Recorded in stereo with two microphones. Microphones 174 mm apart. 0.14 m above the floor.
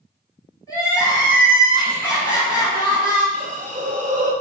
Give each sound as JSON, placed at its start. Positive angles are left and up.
{"t": 0.7, "sound": "crying", "side_deg": 20, "distance_m": 1.4}
{"t": 3.3, "sound": "a hiss", "side_deg": -50, "distance_m": 0.6}